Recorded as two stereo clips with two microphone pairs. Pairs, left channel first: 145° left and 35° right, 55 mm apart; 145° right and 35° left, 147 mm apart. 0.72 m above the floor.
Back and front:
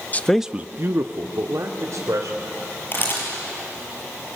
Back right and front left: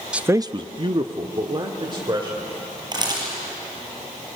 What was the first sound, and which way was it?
A man speaking, 120° left.